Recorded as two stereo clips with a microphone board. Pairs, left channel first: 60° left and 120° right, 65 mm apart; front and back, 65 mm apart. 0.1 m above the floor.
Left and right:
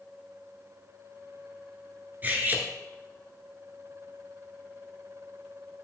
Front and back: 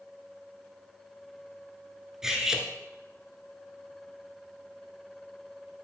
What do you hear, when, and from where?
2.2 s cutlery clinking: 105° right, 0.9 m